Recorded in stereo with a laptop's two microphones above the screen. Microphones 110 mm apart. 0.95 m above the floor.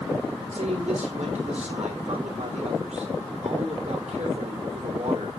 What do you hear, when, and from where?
0.5 s a man speaking: 85° right, 3 m